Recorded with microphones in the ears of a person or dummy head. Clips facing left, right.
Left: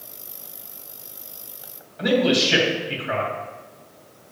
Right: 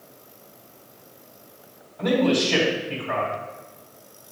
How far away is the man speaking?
About 2.5 m.